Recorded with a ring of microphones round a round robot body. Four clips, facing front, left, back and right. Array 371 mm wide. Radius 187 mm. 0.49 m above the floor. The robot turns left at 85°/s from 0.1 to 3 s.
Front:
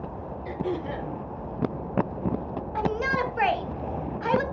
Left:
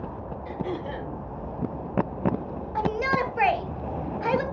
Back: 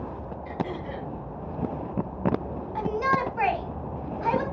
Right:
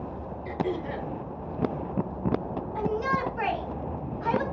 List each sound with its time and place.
0.5 s throat clearing: 45° right, 7.5 m; by 1.1 s 100° right, 7.5 m
2.8 s a shout: 80° left, 2.5 m; by 4.4 s 55° left, 2.5 m